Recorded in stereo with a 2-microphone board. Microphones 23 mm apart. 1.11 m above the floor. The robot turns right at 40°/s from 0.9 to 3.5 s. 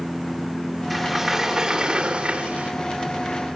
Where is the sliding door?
175° left, 2.5 m; by 2.7 s 110° right, 2.5 m.